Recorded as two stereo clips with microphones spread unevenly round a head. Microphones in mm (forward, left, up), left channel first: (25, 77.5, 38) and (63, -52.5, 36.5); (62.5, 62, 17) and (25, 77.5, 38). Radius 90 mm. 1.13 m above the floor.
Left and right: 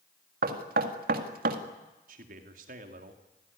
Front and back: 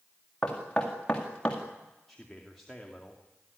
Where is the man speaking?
110° right, 2 m.